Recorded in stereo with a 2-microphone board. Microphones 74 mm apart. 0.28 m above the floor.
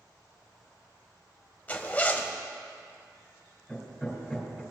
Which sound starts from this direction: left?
A zipper, at 1.7 s.